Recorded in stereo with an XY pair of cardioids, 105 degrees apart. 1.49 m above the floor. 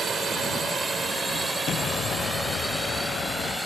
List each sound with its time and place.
0.0 s a drone: 45° right; by 3.7 s 5° right
1.7 s an explosion: 60° left